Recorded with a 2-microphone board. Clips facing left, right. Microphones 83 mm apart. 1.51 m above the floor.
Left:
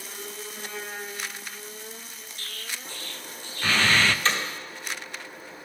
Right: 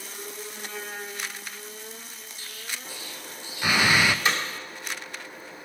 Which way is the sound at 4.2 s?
10° right (ahead or behind).